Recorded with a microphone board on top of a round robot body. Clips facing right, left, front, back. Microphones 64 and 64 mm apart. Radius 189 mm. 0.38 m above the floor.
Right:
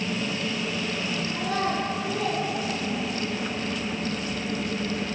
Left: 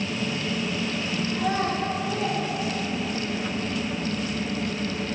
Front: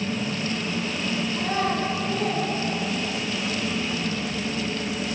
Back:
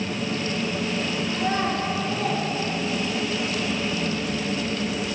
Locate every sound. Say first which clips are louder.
1.3 s a child speaking: left 2 dB, back 1 dB; 125° left, 6.5 m; by 3.3 s 130° left, 7.5 m